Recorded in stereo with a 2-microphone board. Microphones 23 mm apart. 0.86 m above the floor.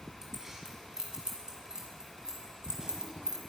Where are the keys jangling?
20° right (ahead or behind), 6 m; by 3.4 s 35° right (ahead or behind), 4 m.